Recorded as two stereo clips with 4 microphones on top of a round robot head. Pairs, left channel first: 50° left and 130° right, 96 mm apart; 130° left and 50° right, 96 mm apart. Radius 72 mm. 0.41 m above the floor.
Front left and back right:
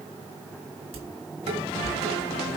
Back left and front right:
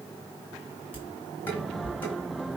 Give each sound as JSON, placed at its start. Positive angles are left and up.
{"t": 0.9, "sound": "dishes clattering", "azimuth_deg": -160, "distance_m": 3.5}